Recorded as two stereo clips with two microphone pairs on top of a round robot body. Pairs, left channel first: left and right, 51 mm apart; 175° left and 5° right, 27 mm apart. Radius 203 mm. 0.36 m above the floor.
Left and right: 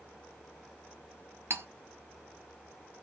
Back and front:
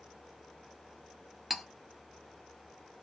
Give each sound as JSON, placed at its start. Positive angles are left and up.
{"t": 1.5, "sound": "cutlery clinking", "azimuth_deg": -90, "distance_m": 1.1}